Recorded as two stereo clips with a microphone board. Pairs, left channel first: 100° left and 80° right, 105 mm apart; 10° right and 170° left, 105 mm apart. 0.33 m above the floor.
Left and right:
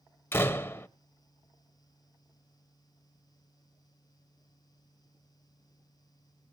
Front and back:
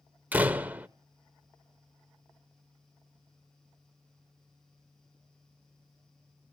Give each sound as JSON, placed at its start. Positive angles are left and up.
{"t": 0.3, "sound": "a door slam", "azimuth_deg": 120, "distance_m": 0.6}